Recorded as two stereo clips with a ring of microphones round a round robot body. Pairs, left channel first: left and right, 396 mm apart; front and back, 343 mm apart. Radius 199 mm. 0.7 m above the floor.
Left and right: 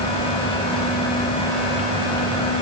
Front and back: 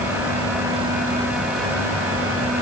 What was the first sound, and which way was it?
Only background noise.